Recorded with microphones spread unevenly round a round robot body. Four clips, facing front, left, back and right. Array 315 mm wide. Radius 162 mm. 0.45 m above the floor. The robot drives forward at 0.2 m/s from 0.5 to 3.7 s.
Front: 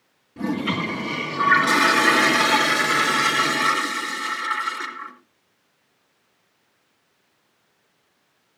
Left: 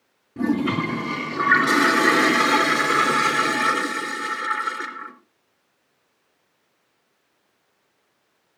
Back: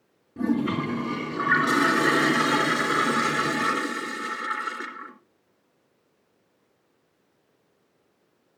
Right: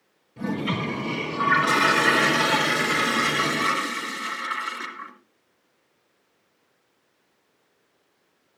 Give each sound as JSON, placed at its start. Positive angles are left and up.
{"t": 0.4, "sound": "a toilet flushing", "azimuth_deg": 85, "distance_m": 4.0}